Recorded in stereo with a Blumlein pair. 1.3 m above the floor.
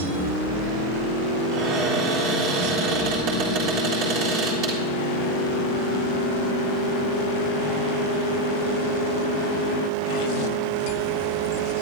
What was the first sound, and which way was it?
A cupboard door, 40° right.